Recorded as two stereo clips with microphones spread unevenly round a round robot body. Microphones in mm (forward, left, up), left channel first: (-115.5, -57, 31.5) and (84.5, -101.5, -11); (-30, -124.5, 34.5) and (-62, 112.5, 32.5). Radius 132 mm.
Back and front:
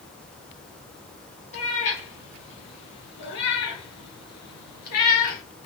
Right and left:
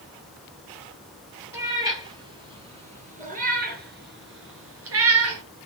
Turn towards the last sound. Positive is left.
turn(degrees=120)